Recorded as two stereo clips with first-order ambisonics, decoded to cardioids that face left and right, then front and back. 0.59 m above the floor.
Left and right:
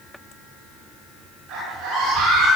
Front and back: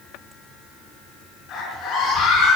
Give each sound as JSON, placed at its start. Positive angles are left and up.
{"t": 1.5, "sound": "a scream", "azimuth_deg": -50, "distance_m": 8.5}